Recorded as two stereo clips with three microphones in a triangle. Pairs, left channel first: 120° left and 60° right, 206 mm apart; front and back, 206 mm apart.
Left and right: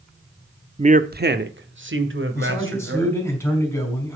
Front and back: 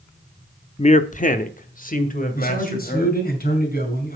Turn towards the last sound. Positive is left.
turn(degrees=45)